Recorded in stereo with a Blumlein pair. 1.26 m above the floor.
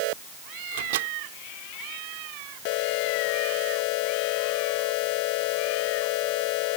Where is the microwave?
55° right.